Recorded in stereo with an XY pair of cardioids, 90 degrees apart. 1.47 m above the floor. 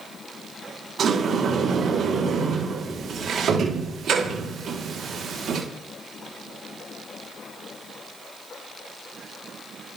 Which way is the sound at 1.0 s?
65° right.